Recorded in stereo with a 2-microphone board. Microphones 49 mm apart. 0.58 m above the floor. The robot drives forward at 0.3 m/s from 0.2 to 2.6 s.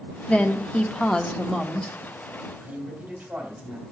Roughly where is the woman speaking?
Left.